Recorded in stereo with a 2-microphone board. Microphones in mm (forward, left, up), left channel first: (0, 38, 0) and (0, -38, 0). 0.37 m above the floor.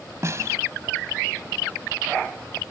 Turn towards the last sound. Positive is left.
turn(degrees=-40)  # may be behind; listen again after turning